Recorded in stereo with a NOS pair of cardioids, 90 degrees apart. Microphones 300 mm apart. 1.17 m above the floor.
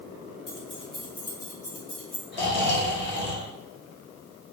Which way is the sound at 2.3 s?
40° left.